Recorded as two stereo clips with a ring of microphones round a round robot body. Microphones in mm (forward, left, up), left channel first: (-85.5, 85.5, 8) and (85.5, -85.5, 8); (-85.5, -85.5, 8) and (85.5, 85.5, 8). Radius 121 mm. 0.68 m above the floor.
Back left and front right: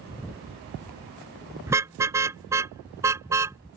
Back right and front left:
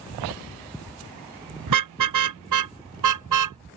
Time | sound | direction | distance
1.7 | a car horn | 35° left | ?